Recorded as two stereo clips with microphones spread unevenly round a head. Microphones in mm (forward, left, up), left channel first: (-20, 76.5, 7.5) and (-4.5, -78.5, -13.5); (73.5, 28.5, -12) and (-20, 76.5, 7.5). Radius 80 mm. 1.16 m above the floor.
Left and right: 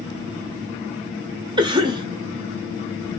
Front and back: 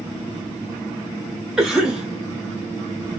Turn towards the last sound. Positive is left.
turn(degrees=-110)